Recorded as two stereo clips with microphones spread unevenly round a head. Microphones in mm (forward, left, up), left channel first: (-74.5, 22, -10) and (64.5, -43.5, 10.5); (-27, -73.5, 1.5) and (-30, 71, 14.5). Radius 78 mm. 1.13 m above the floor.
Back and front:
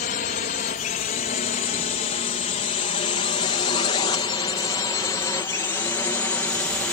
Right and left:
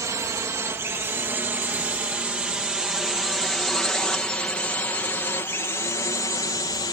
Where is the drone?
155° left; by 6.9 s 130° right.